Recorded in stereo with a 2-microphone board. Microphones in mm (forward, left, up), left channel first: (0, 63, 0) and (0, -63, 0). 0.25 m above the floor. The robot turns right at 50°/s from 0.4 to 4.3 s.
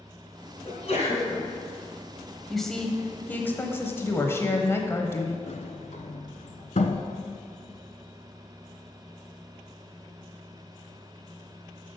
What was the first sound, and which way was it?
A sneeze, 60° left.